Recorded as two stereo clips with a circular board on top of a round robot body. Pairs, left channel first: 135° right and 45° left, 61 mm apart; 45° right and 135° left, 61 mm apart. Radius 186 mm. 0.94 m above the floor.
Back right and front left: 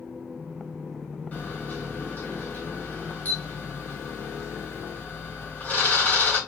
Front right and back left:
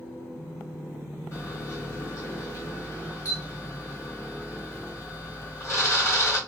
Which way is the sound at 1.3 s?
75° right.